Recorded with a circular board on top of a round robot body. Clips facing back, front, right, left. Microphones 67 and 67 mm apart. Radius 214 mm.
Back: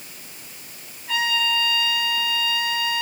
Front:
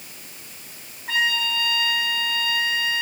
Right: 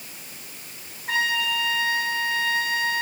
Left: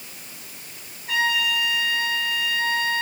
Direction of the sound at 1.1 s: 45° right.